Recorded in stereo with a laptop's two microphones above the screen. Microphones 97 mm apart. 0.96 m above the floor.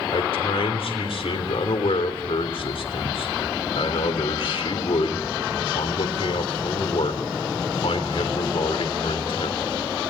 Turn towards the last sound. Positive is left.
turn(degrees=75)  # may be behind; listen again after turning